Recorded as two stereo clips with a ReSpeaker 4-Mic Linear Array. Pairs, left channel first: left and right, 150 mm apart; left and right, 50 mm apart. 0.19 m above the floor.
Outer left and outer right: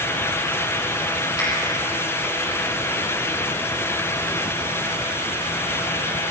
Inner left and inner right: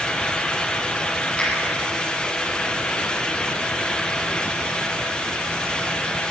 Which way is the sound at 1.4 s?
25° left (ahead or behind).